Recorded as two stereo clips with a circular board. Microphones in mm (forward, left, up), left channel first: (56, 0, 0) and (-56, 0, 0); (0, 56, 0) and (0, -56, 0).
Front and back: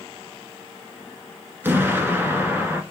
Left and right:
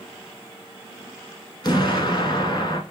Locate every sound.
1.6 s an explosion: 115° left, 1.3 m